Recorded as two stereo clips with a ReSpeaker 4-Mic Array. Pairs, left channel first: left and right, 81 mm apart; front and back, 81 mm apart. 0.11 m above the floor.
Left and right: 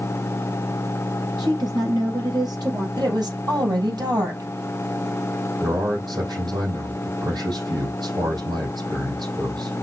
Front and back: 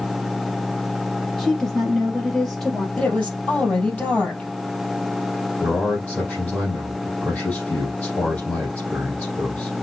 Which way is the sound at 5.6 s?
75° right.